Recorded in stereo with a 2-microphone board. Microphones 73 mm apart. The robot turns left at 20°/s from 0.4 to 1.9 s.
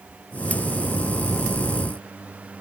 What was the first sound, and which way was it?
Only background noise.